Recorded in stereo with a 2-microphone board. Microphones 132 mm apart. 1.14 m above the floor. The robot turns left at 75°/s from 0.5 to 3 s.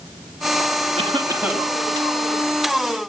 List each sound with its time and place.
1.0 s a cough: 130° right, 2 m; by 1.7 s 175° left, 2 m